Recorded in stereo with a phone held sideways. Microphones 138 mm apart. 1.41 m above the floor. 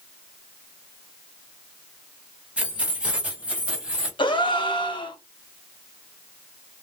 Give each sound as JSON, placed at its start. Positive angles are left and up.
{"t": 2.6, "sound": "keys jangling", "side_deg": -10, "distance_m": 0.8}
{"t": 4.2, "sound": "a gasp", "side_deg": 35, "distance_m": 0.6}